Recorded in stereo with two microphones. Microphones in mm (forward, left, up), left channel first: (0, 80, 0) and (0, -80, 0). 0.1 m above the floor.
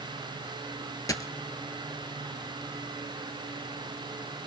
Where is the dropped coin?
20° left (ahead or behind), 0.6 m.